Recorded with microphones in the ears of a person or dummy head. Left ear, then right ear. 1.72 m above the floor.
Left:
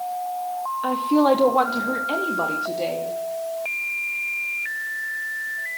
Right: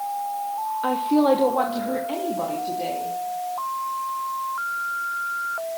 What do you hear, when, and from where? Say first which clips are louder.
0.8 s a woman speaking: left 1 dB; 10° right (ahead or behind), 0.8 m; by 3.1 s 45° left (ahead or behind), 3 m